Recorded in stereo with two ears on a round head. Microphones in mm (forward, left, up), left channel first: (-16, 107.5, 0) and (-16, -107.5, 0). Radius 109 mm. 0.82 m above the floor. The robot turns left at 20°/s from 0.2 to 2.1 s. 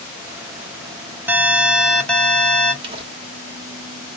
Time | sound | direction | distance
1.3 | an alarm | 10° right (ahead or behind) | 0.8 m
2.8 | crumpling | 25° right (ahead or behind) | 1.1 m